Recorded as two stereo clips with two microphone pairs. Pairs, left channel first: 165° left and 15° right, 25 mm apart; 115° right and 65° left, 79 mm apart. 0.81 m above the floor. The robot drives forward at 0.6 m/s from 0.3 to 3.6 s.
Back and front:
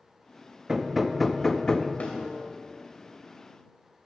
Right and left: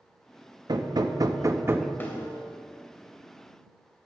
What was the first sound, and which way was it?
Hammering, 55° left.